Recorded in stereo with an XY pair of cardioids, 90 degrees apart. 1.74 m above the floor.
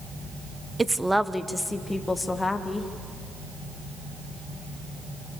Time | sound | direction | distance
0.8 | a woman speaking | 25° right | 0.9 m